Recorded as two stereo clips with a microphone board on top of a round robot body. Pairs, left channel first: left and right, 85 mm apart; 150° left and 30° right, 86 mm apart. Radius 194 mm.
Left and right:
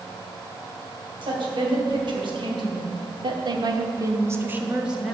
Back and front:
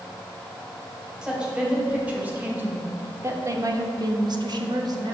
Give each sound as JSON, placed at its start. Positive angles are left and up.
{"t": 1.2, "sound": "a woman speaking", "azimuth_deg": -110, "distance_m": 2.5}